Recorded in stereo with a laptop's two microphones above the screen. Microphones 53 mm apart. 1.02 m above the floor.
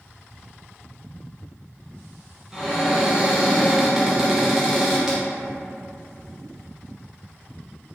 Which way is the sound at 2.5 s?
10° right (ahead or behind).